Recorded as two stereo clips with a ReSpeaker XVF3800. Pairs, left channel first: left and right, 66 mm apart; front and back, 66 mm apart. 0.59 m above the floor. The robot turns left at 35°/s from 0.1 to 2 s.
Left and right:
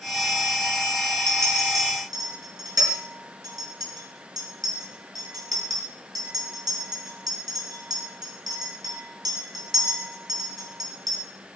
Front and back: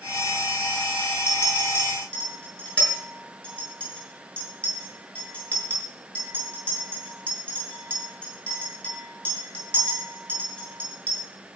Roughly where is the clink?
Ahead right.